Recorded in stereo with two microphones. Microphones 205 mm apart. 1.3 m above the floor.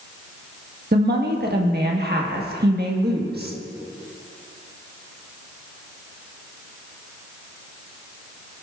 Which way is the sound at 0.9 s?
50° right (ahead or behind).